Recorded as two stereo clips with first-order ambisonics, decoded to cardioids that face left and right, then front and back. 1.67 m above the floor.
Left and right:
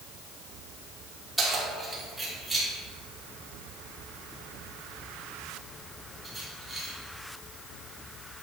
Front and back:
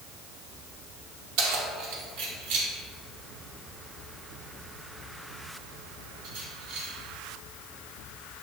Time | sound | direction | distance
1.4 | keys jangling | 175° right | 2.5 m